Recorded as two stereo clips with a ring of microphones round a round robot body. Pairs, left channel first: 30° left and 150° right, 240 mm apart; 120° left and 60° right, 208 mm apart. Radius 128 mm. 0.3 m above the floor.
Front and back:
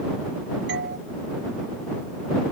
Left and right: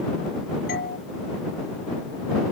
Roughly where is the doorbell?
Behind.